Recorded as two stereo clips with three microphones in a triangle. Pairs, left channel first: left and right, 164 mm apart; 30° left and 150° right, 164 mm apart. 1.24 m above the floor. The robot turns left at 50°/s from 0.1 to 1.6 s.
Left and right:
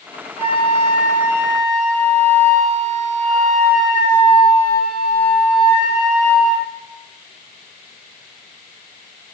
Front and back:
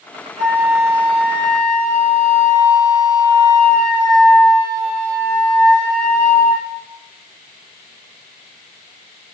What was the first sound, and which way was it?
A flute, 115° left.